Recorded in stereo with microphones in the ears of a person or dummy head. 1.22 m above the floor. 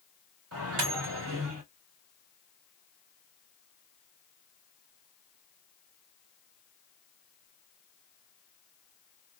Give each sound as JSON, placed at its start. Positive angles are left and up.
{"t": 0.5, "sound": "a microwave", "side_deg": -80, "distance_m": 1.5}